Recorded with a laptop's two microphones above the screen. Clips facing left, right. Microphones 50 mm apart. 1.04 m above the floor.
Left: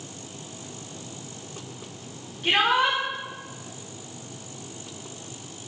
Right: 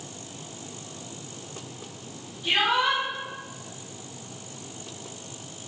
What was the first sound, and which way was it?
A shout, 65° left (ahead or behind).